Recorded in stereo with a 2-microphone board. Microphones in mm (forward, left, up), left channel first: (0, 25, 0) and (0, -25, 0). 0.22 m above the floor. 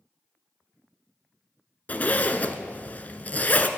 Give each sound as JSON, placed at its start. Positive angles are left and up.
{"t": 1.9, "sound": "a zipper", "side_deg": 35, "distance_m": 0.7}